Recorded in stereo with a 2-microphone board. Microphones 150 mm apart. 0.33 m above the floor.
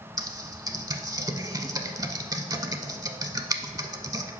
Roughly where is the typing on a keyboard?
Right.